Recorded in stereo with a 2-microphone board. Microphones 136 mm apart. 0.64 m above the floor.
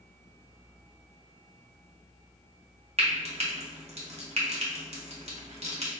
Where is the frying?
50° right (ahead or behind), 1.0 m.